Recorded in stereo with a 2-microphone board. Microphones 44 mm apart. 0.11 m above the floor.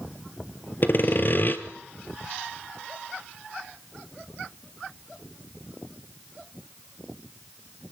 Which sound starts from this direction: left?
Sawing, at 0.8 s.